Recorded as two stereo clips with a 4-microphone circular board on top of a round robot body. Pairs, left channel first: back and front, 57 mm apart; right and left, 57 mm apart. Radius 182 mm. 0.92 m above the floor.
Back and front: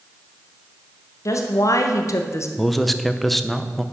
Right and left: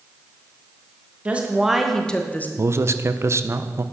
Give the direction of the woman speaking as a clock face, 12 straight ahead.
7 o'clock.